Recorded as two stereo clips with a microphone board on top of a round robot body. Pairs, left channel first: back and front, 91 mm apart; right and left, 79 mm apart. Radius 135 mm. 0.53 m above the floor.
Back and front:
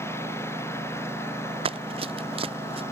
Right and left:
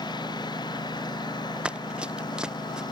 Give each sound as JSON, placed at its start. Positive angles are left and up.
{"t": 0.0, "sound": "a lawn mower", "azimuth_deg": -120}
{"t": 1.6, "sound": "running footsteps", "azimuth_deg": 15}